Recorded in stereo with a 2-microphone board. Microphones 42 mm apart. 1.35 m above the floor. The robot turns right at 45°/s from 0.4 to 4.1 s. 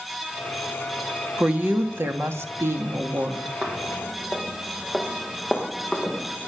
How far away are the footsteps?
About 3.5 m.